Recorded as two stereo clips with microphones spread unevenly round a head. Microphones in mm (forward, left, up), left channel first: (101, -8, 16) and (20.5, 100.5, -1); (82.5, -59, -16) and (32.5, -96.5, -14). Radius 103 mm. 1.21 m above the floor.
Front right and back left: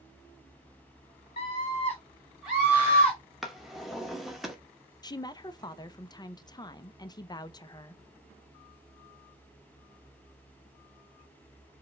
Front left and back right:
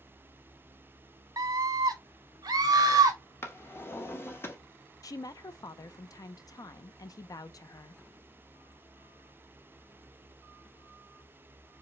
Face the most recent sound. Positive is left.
turn(degrees=10)